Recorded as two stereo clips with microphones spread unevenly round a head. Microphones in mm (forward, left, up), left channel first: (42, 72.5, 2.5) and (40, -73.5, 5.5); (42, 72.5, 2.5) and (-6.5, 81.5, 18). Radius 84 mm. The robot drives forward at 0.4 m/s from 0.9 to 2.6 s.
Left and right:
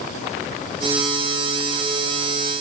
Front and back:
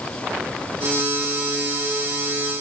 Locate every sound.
Only background noise.